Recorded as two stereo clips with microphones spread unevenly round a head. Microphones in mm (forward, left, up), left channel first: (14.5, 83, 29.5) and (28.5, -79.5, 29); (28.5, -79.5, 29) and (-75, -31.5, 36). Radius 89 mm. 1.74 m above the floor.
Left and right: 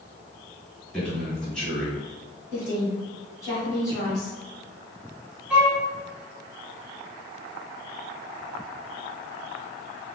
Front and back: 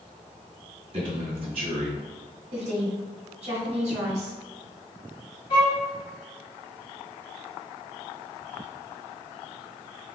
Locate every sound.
0.9 s a man speaking: straight behind, 1.7 m
2.5 s a woman speaking: 165° left, 1.8 m
5.5 s a violin: 5° right, 0.9 m